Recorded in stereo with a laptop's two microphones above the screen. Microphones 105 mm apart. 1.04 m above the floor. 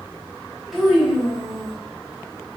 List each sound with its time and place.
0.7 s a child speaking: centre (ahead or behind), 0.9 m